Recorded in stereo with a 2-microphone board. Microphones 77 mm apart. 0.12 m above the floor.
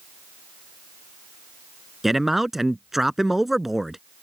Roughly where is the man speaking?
Centre.